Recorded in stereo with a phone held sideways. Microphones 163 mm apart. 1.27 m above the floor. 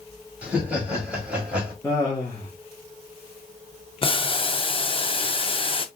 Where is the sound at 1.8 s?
15° left (ahead or behind), 1.5 m.